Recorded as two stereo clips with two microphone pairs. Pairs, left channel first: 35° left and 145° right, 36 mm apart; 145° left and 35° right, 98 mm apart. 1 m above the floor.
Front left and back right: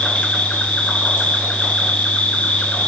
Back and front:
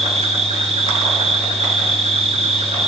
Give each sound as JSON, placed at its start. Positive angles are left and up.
{"t": 0.0, "sound": "an insect", "azimuth_deg": -25, "distance_m": 1.2}